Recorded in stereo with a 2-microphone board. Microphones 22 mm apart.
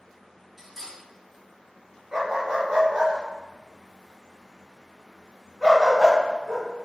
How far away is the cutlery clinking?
About 1.2 m.